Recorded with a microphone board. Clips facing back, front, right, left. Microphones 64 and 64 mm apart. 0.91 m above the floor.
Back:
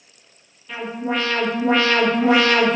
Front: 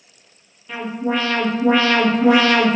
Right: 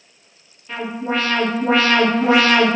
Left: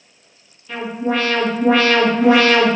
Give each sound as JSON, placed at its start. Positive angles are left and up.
{"t": 0.7, "sound": "an alarm", "azimuth_deg": -70, "distance_m": 1.6}